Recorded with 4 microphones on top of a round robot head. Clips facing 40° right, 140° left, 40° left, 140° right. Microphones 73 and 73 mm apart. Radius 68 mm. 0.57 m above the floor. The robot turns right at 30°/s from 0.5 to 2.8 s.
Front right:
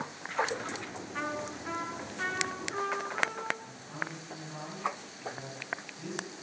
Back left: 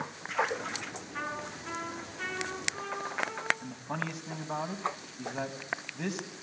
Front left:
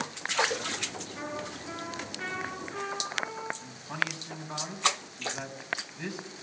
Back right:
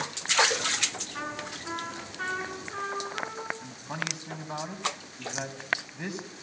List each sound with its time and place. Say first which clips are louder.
1.1 s a trumpet: front right 2 dB, back right 1 dB; 130° right, 9.5 m; by 3.5 s 80° right, 9.5 m
3.6 s a man speaking: back left 3 dB, front left 2 dB; 150° left, 4 m